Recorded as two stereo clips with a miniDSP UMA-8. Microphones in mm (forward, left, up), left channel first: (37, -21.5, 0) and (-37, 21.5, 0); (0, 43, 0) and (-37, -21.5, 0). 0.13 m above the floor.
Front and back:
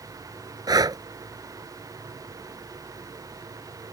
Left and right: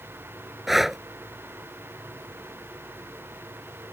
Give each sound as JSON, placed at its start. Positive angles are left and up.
{"t": 0.7, "sound": "breathing", "azimuth_deg": 155}